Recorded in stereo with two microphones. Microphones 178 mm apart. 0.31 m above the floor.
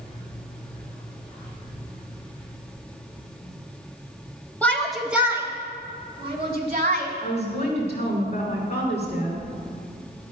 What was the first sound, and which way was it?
A shout, 10° left (ahead or behind).